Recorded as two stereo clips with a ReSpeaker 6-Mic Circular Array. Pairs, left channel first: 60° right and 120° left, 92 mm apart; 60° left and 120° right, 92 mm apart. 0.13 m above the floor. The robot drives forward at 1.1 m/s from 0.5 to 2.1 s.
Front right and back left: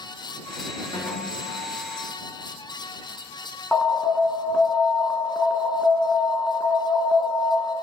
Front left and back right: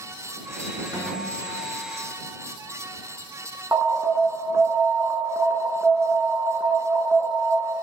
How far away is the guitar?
About 3 m.